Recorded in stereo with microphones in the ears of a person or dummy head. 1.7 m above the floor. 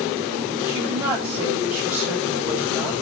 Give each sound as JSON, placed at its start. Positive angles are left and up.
{"t": 0.7, "sound": "a woman speaking", "side_deg": -15, "distance_m": 9.5}